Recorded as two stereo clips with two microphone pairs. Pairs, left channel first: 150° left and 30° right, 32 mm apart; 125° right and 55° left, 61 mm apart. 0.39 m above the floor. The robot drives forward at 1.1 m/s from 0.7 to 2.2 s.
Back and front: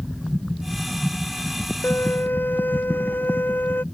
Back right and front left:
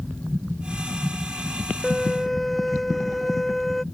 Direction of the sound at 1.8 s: 145° left.